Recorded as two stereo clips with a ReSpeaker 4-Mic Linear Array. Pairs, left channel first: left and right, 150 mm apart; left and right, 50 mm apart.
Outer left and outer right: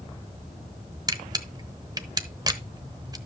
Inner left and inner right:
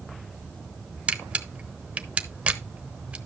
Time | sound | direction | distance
1.1 | a camera shutter | 25° right (ahead or behind) | 0.9 m